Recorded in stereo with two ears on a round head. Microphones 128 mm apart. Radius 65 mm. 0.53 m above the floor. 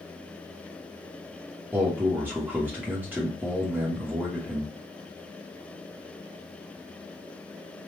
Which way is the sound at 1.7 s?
15° right (ahead or behind).